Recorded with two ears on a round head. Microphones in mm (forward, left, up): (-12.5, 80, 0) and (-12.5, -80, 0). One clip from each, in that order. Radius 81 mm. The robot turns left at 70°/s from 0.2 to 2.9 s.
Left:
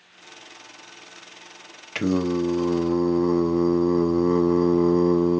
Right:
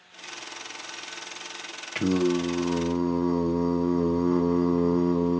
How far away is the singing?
About 0.6 m.